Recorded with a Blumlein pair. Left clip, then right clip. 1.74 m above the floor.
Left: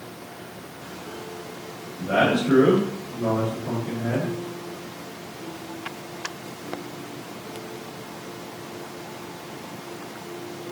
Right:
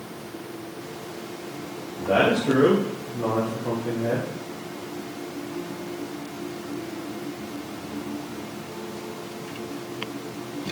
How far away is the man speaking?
About 3 m.